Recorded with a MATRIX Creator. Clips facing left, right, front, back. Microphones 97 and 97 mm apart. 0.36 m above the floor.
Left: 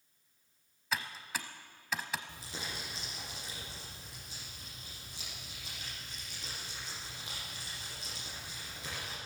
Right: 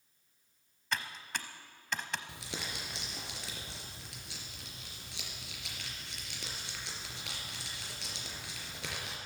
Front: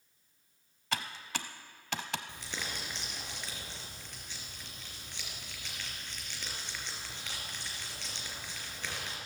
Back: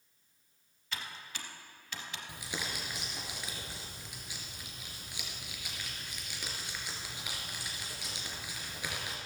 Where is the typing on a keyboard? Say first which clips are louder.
Even, front 6 dB; 5° left, 0.8 m.